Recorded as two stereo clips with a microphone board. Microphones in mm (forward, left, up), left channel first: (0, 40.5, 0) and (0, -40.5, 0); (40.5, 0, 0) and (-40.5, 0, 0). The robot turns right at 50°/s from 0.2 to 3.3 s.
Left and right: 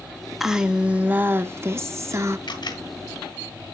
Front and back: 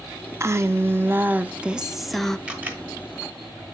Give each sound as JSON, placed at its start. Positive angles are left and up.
{"t": 0.4, "sound": "a woman speaking", "azimuth_deg": -175, "distance_m": 0.6}
{"t": 2.5, "sound": "a camera shutter", "azimuth_deg": 105, "distance_m": 1.3}